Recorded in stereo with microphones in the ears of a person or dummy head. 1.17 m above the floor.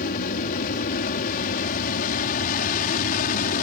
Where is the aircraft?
45° left (ahead or behind).